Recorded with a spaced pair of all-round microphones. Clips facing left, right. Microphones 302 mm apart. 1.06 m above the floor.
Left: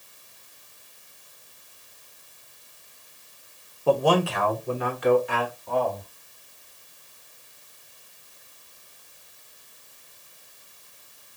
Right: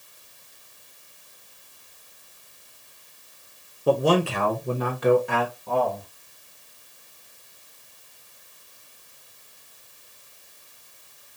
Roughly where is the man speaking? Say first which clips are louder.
Right 1 dB; centre.